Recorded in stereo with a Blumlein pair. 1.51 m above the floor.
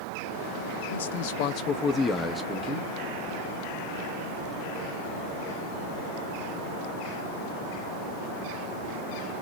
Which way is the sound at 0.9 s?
65° left.